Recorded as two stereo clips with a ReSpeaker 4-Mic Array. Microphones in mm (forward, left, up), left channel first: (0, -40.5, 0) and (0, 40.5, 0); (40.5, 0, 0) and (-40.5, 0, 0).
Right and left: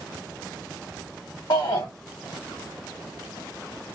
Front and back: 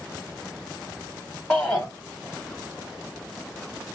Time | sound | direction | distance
1.5 | a shout | 75° right | 0.9 m